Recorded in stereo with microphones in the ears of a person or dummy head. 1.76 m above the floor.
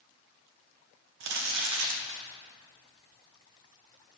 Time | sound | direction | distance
1.2 | crumpling | 70° right (ahead or behind) | 1.9 m